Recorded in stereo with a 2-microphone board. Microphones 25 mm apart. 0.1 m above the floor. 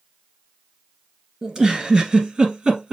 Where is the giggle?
30° right (ahead or behind), 2.0 m.